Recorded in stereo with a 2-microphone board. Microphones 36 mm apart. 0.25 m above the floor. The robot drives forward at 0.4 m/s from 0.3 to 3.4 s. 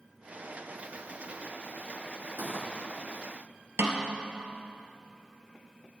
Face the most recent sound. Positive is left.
turn(degrees=-70)  # may be behind; listen again after turning